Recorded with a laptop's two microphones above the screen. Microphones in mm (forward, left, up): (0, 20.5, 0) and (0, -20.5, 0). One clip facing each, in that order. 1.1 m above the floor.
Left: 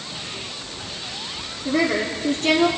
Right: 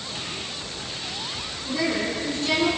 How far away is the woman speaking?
About 3 m.